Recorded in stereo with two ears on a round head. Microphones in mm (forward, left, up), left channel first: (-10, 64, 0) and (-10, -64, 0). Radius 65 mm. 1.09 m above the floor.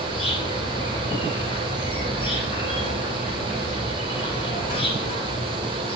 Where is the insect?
35° left (ahead or behind), 8.5 m.